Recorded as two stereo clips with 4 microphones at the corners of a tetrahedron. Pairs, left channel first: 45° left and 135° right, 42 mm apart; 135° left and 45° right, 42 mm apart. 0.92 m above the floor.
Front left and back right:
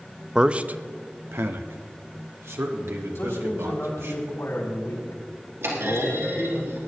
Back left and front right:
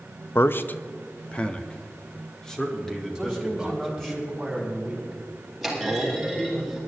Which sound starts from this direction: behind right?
A clunk, at 5.6 s.